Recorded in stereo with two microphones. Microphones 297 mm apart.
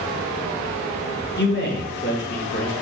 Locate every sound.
1.4 s a man speaking: 35° left (ahead or behind), 2.5 m